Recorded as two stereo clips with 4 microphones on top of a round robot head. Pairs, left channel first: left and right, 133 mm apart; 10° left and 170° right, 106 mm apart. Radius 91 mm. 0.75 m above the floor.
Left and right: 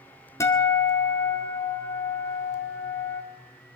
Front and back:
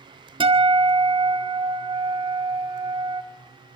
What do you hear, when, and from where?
0.4 s a guitar: 160° left, 2 m